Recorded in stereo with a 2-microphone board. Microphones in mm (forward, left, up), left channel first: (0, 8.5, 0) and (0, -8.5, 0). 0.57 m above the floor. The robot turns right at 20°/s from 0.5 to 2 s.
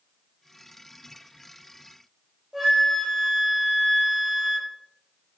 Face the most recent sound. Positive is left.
turn(degrees=-10)  # may be behind; listen again after turning